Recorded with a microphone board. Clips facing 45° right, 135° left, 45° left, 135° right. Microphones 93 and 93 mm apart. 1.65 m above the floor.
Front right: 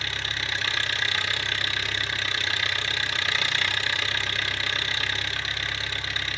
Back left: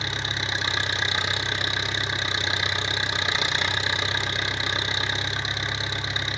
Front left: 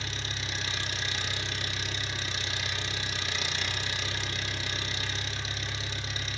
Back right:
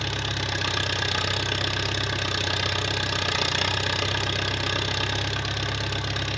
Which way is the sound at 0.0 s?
155° right.